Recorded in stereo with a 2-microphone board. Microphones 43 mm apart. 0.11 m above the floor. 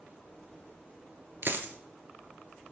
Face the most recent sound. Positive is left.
turn(degrees=-55)  # may be behind; listen again after turning